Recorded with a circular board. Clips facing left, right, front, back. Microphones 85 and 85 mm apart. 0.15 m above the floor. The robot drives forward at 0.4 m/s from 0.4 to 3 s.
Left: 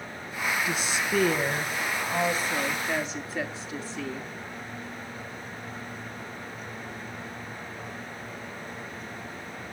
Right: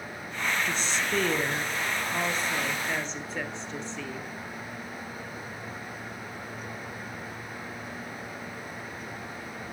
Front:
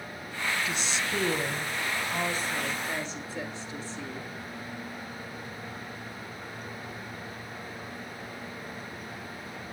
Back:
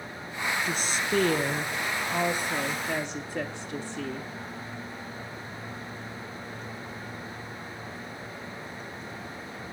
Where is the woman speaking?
170° left, 1.6 m; by 4.3 s 175° left, 2.5 m.